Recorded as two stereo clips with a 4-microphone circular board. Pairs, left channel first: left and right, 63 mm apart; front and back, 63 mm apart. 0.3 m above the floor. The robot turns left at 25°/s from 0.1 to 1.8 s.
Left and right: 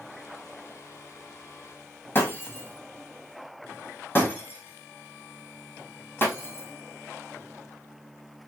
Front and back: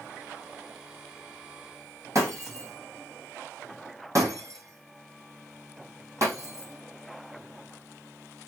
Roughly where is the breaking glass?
Behind left.